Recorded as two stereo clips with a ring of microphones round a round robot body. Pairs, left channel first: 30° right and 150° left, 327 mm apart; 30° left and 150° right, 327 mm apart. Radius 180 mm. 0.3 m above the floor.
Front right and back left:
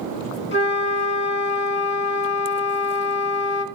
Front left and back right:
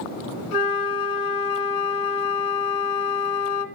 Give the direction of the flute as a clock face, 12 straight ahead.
11 o'clock.